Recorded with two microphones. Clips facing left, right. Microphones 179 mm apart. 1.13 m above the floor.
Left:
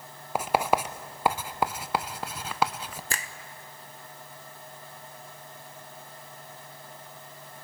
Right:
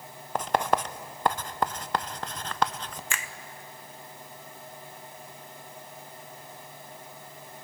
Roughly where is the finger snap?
Left.